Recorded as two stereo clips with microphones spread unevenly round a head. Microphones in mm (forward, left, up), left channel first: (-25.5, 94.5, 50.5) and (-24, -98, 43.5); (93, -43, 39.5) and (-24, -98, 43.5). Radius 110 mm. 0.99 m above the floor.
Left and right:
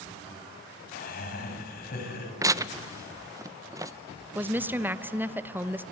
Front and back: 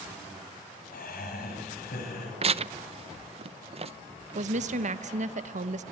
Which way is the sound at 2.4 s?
155° right.